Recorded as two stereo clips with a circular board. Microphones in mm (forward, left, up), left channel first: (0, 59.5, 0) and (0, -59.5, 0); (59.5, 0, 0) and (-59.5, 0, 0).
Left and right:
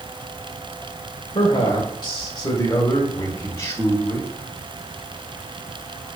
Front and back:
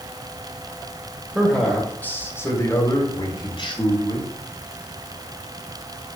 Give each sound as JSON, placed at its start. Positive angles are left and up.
{"t": 1.4, "sound": "a man speaking", "azimuth_deg": 95, "distance_m": 1.7}